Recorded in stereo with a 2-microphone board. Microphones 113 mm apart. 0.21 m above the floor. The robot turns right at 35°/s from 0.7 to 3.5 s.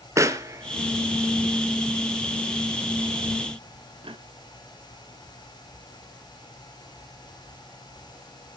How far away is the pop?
About 0.9 m.